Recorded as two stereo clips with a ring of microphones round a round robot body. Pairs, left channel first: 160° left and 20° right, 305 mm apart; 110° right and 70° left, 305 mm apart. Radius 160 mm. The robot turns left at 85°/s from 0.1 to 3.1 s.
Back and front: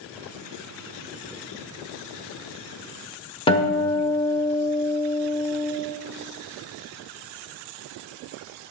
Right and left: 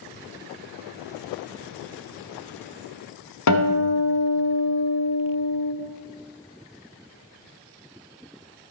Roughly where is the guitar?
Behind right.